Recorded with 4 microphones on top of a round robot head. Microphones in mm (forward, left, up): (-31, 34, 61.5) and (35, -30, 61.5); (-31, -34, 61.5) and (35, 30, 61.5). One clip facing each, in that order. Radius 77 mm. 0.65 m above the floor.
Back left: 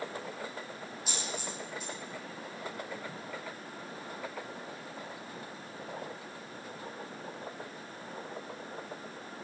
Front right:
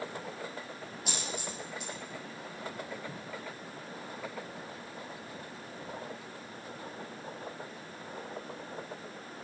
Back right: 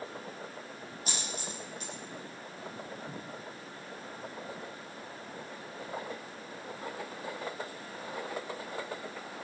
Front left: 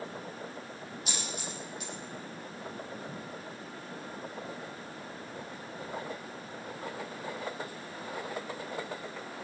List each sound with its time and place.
1.1 s a dropped coin: 80° right, 4 m